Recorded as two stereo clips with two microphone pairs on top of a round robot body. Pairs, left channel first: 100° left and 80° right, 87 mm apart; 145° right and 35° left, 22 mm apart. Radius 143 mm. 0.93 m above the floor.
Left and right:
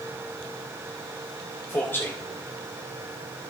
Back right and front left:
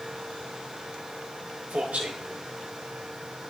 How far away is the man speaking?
About 1.0 m.